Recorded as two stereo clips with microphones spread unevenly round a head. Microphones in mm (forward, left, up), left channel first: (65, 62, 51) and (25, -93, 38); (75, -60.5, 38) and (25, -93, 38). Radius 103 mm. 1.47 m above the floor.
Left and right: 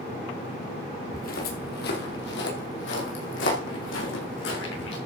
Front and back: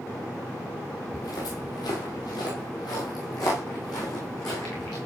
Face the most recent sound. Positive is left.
turn(degrees=100)